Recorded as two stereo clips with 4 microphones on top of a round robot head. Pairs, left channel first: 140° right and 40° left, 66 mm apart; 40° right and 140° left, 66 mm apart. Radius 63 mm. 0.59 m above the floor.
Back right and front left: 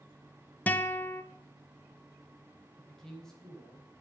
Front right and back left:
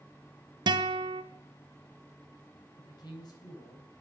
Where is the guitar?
155° left, 0.8 m.